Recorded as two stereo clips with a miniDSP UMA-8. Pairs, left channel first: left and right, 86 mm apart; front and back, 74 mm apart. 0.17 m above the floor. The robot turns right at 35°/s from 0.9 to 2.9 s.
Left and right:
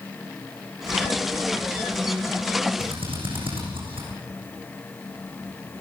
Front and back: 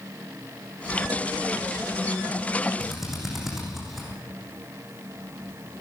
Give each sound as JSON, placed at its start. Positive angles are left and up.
{"t": 2.8, "sound": "a drill", "azimuth_deg": -95, "distance_m": 7.5}